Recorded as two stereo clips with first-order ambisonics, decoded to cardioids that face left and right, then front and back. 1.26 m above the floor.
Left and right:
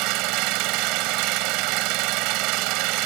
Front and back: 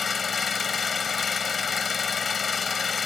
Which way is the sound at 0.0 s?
70° right.